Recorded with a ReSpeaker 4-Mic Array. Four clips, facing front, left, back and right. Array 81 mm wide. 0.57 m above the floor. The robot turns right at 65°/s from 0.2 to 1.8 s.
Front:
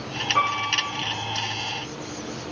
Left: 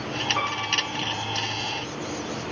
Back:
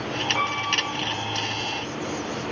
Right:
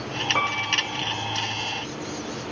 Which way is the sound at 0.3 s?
85° right.